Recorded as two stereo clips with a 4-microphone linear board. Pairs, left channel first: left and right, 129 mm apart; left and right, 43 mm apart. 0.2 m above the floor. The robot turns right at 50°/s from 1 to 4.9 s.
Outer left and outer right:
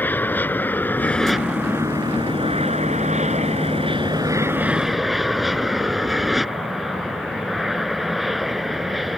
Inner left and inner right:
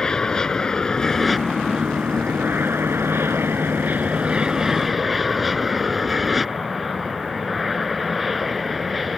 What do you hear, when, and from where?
0.0 s an aircraft: 165° left; by 9.2 s straight ahead